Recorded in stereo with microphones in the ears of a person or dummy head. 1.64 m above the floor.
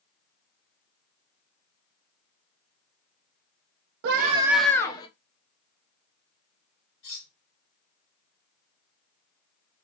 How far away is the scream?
About 0.7 m.